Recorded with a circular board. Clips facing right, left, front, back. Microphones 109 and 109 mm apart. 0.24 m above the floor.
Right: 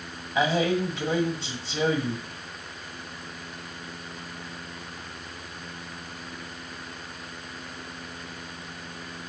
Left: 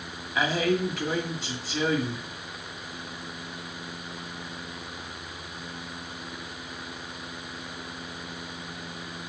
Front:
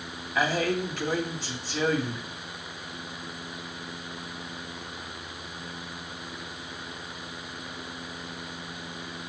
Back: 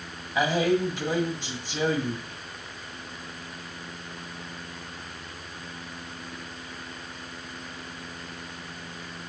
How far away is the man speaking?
About 1.5 m.